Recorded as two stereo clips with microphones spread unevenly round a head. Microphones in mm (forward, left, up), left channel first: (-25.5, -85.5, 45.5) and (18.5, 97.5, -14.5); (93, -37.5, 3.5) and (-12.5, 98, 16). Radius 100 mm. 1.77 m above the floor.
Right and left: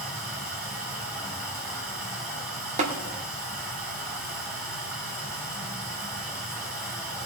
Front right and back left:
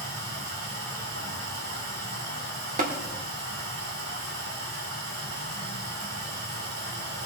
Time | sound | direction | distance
0.0 | running water | 165° left | 7 m
2.8 | tapping | 145° left | 1.8 m